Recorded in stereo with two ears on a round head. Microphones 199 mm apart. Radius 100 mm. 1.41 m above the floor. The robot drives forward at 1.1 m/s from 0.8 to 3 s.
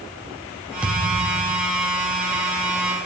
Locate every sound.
0.8 s a thud: 5° right (ahead or behind), 4 m